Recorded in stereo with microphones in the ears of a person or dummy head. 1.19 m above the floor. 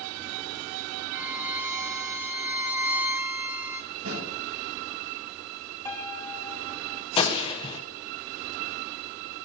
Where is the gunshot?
30° left (ahead or behind), 1.9 m.